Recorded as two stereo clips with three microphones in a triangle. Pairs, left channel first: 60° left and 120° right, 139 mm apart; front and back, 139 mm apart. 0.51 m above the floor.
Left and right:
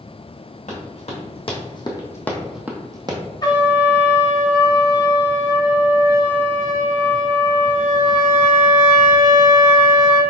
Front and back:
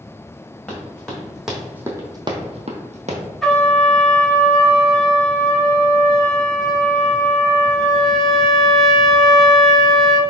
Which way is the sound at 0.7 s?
80° left.